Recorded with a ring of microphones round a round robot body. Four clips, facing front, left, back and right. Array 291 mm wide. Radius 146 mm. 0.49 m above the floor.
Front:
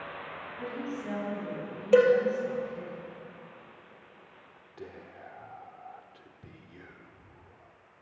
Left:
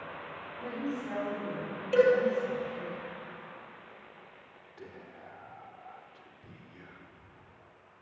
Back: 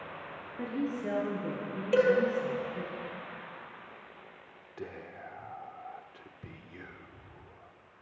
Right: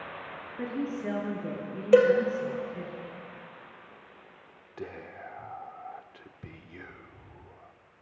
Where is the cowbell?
70° right, 3.5 m.